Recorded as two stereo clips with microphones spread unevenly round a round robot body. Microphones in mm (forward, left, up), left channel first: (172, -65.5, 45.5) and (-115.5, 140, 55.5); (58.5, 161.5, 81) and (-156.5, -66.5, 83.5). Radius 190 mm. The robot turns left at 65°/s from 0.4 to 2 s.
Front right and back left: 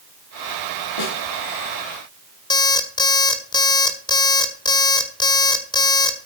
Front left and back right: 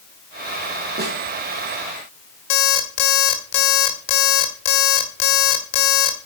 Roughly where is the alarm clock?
Ahead left.